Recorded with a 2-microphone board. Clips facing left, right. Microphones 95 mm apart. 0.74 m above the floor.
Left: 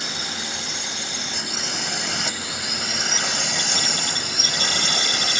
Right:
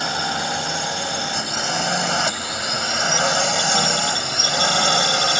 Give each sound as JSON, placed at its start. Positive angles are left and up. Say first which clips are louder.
{"t": 0.0, "sound": "a drone", "louder": "right 9 dB", "side_deg": -55}